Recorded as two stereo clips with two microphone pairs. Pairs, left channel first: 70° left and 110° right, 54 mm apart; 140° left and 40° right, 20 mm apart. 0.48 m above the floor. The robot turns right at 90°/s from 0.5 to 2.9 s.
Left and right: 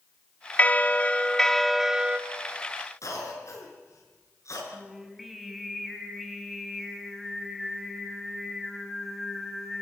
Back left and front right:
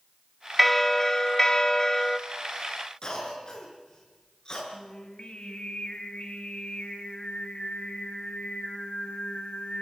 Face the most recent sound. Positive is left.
turn(degrees=160)